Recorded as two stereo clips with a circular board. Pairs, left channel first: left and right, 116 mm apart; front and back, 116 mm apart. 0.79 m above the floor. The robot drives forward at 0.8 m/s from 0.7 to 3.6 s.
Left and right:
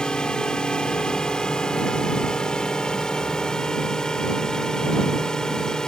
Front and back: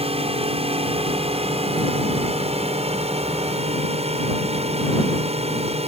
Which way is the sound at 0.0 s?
170° left.